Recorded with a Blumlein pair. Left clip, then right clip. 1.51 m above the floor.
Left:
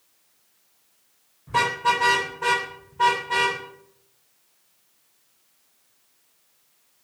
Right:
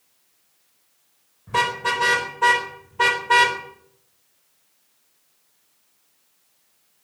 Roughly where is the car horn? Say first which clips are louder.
Even; ahead.